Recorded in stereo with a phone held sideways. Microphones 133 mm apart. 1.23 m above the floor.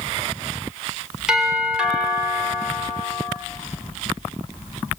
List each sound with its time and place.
1.3 s a doorbell: 5° right (ahead or behind), 6 m